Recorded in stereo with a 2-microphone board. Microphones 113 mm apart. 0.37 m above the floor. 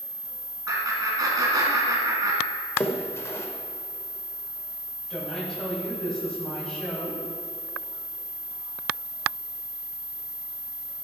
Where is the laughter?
35° right (ahead or behind), 3.5 m.